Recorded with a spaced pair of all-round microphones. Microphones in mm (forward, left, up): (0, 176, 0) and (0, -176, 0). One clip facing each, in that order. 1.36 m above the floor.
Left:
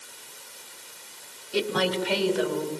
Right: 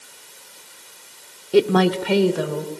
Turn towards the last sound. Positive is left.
turn(degrees=-60)  # may be behind; listen again after turning